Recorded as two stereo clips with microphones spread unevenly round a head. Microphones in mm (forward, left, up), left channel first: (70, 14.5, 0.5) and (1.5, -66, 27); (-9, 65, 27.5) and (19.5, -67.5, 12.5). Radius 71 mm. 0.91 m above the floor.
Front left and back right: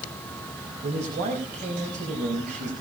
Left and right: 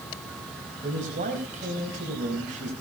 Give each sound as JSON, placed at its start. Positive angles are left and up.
{"t": 0.8, "sound": "a man speaking", "azimuth_deg": -115, "distance_m": 5.0}